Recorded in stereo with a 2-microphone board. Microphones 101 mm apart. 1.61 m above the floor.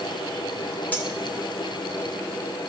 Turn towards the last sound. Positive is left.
turn(degrees=20)  # may be behind; listen again after turning